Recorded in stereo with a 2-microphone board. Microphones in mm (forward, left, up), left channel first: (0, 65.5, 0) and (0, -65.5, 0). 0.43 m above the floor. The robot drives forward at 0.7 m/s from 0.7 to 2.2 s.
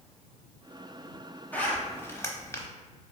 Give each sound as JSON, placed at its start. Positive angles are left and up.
{"t": 1.5, "sound": "a zipper", "side_deg": 15, "distance_m": 1.1}